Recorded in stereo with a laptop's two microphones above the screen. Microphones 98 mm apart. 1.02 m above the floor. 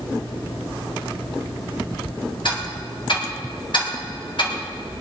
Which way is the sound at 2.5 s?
55° left (ahead or behind).